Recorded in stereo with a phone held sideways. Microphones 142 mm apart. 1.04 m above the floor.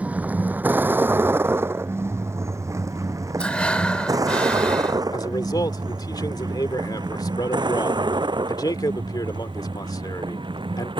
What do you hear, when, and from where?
0.0 s a vehicle: 10° right (ahead or behind); by 11.0 s 35° right (ahead or behind)
3.4 s breathing: 10° left (ahead or behind)
5.1 s a man speaking: 30° left (ahead or behind)